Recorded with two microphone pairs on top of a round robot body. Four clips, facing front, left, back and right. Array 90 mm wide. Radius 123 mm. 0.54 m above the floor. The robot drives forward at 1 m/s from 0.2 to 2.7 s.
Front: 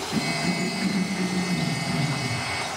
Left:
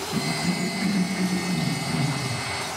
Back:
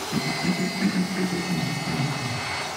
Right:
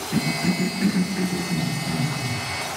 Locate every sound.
0.1 s a cough: 100° right, 1.0 m; by 2.8 s 170° right, 3 m